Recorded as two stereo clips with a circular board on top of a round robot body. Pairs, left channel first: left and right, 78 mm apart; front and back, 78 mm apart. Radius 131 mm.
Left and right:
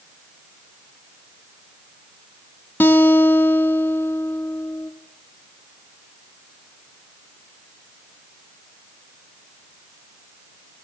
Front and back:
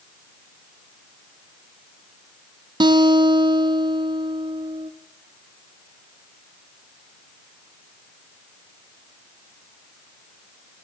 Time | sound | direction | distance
2.8 | a guitar | 155° left | 1.5 m